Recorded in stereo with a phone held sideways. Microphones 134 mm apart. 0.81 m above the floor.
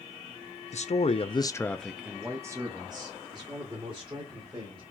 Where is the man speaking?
60° left (ahead or behind), 0.7 m; by 4.8 s 40° right (ahead or behind), 2.5 m.